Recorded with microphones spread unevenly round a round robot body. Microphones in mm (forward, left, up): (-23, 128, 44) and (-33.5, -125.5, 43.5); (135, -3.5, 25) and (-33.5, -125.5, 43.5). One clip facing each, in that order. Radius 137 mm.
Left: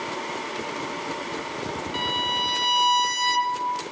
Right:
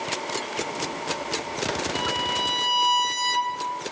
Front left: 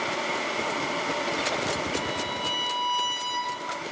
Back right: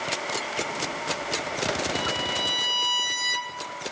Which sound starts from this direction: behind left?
A violin, at 1.9 s.